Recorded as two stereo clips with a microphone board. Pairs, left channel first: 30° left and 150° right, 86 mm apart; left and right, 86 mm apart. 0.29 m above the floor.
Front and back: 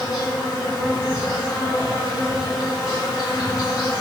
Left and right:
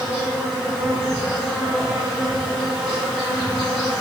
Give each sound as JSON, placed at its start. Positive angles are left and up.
{"t": 0.0, "sound": "an insect", "azimuth_deg": 5, "distance_m": 1.3}